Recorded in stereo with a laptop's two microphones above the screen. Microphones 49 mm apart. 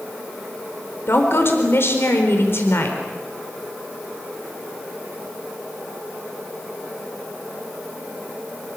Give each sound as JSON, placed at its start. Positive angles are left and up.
{"t": 1.1, "sound": "a woman speaking", "side_deg": 55, "distance_m": 4.0}